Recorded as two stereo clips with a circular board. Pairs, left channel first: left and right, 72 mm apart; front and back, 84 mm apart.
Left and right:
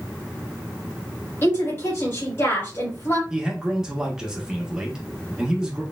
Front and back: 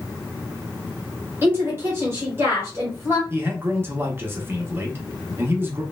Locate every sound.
1.4 s a woman speaking: 130° left, 1.8 m
3.3 s a man speaking: 160° right, 0.9 m